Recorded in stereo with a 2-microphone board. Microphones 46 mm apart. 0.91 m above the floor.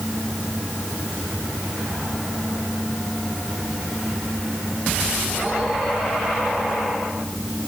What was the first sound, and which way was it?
Only background noise.